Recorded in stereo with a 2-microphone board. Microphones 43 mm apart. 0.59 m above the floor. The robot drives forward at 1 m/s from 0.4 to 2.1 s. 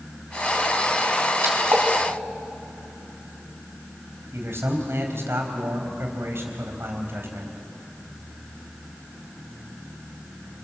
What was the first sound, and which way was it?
A splash, 60° right (ahead or behind).